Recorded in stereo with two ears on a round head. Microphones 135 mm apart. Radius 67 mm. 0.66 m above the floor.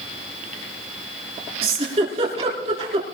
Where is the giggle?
40° right (ahead or behind), 4 m.